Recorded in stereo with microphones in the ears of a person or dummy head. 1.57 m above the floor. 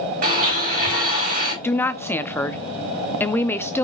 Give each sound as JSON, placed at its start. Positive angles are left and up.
{"t": 0.2, "sound": "a blender", "side_deg": -35, "distance_m": 5.0}
{"t": 1.6, "sound": "a woman speaking", "side_deg": 20, "distance_m": 0.7}